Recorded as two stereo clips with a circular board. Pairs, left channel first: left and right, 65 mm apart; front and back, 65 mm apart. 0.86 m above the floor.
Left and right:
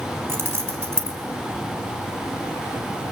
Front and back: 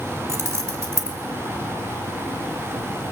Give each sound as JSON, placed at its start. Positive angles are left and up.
{"t": 0.3, "sound": "keys jangling", "azimuth_deg": -135, "distance_m": 2.5}